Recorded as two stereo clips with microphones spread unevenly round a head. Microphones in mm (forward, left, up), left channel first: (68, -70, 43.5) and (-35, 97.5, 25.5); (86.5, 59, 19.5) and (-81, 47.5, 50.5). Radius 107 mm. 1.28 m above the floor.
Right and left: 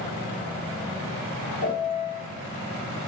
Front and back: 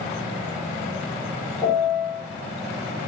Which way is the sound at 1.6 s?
75° right.